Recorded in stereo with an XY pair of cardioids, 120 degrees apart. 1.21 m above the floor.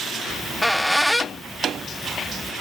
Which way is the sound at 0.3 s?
Straight ahead.